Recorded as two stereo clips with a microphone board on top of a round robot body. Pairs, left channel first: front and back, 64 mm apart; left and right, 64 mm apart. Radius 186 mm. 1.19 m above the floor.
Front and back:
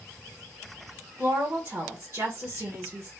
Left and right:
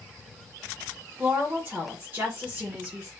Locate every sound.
1.2 s a woman speaking: 145° right, 1.5 m